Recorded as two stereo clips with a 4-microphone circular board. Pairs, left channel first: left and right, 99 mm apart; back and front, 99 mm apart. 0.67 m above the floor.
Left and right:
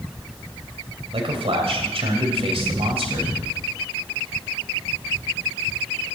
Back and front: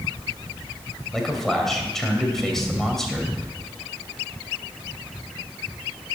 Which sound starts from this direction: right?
A man speaking, at 1.1 s.